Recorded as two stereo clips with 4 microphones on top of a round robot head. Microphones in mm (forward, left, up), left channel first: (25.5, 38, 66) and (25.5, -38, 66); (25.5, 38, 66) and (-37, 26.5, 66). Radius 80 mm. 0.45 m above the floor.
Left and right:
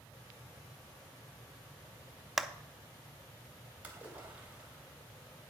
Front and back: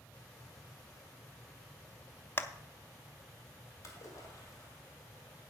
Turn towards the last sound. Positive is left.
turn(degrees=-20)